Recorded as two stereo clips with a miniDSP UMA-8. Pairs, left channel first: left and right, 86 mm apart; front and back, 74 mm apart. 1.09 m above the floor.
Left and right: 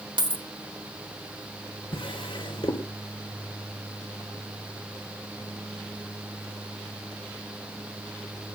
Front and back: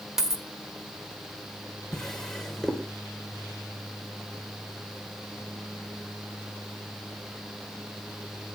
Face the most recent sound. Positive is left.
turn(degrees=85)